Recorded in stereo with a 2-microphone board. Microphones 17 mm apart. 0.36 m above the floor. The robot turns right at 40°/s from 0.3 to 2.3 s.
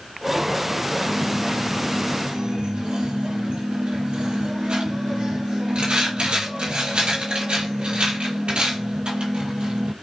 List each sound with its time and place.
1.1 s a dropped coin: 120° right, 2.0 m; by 9.9 s 75° right, 2.0 m